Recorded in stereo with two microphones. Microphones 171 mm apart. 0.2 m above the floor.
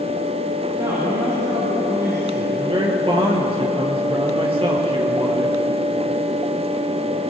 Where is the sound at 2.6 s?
30° right (ahead or behind), 4.5 m.